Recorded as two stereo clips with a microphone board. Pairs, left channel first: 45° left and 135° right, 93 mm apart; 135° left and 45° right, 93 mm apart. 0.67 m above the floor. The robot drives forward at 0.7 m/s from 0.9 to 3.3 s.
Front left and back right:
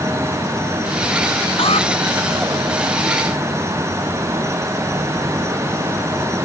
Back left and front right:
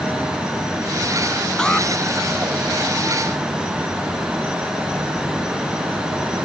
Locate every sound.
1.6 s an alarm: 55° left